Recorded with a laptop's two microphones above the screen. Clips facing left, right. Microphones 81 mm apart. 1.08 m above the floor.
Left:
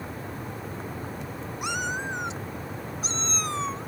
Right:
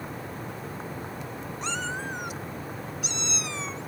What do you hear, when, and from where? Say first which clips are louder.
1.6 s a cat meowing: left 3 dB; 10° left (ahead or behind); by 3.9 s 45° left (ahead or behind)